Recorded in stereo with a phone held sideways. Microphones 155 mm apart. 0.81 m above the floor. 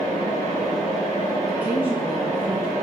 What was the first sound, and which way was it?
A fan, 25° left (ahead or behind).